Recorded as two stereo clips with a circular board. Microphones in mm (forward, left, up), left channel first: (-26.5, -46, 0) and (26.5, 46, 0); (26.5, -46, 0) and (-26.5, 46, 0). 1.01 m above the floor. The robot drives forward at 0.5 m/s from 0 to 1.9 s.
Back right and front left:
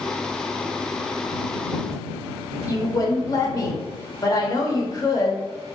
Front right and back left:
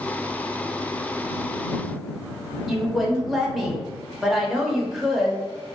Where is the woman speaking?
150° right, 0.6 m.